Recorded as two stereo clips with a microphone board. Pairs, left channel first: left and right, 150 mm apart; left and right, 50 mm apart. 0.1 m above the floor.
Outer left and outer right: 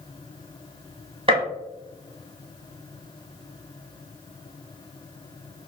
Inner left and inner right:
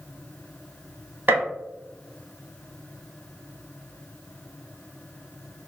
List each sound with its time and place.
1.3 s a gunshot: 35° right (ahead or behind), 1.4 m